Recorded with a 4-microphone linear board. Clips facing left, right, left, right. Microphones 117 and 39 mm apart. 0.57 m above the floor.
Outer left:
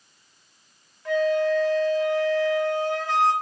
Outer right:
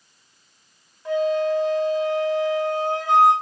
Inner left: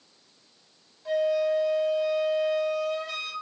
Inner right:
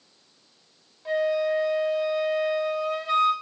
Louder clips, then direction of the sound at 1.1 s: Outer right 1 dB, even; 20° right (ahead or behind).